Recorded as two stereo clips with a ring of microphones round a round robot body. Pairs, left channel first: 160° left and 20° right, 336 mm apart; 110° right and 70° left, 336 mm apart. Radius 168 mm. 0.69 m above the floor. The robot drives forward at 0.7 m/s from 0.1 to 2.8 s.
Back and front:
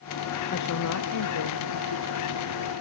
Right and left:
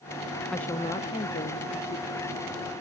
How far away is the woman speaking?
About 0.6 m.